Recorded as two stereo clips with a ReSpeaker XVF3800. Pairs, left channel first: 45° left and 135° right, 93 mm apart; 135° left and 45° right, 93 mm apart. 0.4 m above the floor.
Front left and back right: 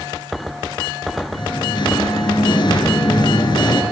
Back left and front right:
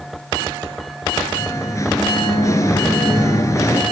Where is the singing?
80° left, 2.5 m.